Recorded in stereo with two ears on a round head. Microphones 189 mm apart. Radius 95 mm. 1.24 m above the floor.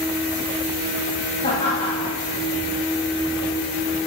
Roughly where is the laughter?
Left.